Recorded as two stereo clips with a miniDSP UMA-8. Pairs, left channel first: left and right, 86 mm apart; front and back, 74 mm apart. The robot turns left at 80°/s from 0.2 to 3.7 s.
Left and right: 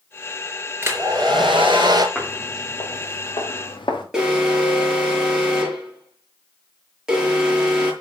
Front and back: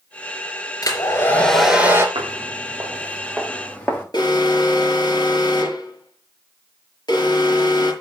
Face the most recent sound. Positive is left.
turn(degrees=-10)